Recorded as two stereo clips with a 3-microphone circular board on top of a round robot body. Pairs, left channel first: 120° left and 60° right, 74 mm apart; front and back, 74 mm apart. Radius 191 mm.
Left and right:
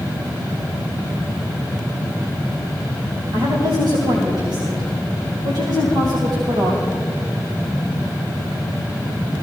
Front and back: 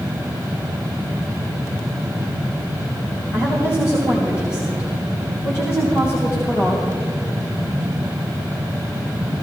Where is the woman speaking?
55° right, 3 m.